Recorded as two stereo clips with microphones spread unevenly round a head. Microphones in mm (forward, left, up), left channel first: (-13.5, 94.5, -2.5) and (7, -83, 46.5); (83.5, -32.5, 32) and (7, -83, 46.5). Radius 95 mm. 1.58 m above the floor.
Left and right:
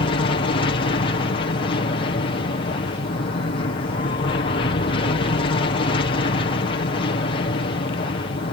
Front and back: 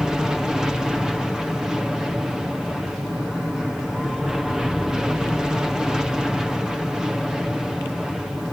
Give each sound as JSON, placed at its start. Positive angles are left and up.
{"t": 0.0, "sound": "an aircraft", "azimuth_deg": 125}